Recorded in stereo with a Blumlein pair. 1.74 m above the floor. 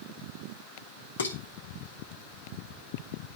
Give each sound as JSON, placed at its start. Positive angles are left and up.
{"t": 1.2, "sound": "dishes clattering", "azimuth_deg": 70, "distance_m": 3.0}